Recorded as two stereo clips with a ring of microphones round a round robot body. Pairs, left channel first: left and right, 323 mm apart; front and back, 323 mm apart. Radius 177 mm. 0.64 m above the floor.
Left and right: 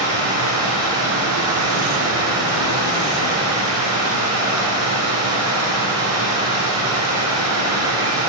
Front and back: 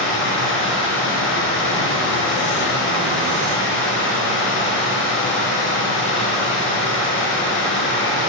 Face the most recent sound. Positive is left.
turn(degrees=-50)